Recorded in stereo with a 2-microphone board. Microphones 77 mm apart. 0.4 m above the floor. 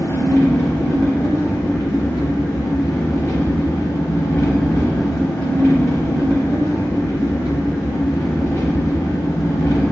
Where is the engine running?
45° left (ahead or behind), 0.9 m.